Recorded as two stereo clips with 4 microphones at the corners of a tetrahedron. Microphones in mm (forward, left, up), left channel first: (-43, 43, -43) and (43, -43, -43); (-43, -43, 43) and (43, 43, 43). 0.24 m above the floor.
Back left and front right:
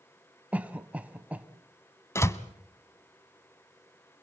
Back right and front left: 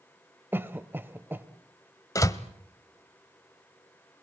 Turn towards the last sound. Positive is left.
turn(degrees=-175)